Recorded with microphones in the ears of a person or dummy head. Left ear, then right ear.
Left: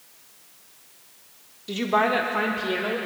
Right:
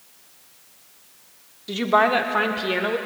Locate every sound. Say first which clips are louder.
1.7 s a woman speaking: right 4 dB; 10° right (ahead or behind), 1.0 m; by 3.0 s 30° right (ahead or behind), 1.7 m